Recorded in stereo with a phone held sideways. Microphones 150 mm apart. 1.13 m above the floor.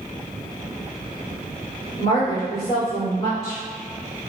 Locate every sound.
2.0 s a woman speaking: 35° left (ahead or behind), 1.8 m